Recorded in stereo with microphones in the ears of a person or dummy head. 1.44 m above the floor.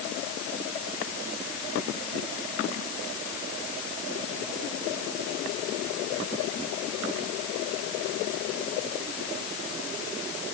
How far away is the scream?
No scream in this recording.